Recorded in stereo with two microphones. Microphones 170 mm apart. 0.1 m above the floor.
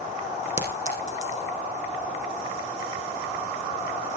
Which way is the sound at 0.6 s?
45° left (ahead or behind).